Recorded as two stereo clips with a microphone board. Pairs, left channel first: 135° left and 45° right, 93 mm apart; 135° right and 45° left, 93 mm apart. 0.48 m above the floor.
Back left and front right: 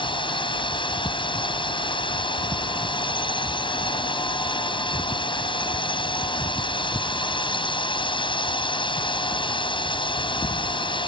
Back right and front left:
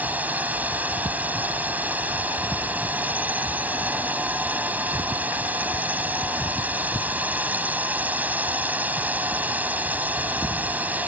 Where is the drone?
115° left.